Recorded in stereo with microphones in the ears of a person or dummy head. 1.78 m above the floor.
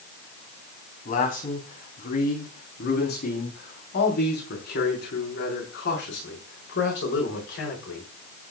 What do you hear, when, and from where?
1.1 s a man speaking: 45° left (ahead or behind), 4 m; by 8.5 s 70° left (ahead or behind), 8 m